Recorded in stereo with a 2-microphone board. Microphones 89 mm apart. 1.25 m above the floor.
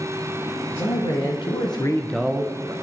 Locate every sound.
0.7 s a man speaking: 80° left, 2 m; by 2.7 s 40° right (ahead or behind), 1.1 m